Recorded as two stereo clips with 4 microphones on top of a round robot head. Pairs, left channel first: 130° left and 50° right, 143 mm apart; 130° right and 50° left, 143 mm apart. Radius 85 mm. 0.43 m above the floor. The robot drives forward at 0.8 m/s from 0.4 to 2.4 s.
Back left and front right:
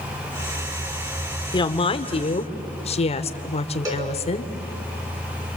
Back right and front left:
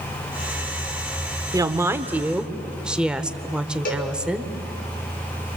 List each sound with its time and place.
1.5 s a woman speaking: 100° left, 1.5 m; by 4.5 s 130° left, 1.7 m
3.9 s a cowbell: 110° right, 6 m